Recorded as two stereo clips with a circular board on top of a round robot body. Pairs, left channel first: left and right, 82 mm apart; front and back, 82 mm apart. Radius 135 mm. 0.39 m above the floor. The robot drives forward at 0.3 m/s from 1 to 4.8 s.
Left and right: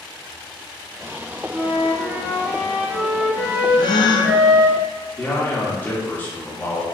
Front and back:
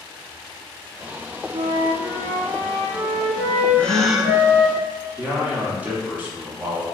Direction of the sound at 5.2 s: 130° left.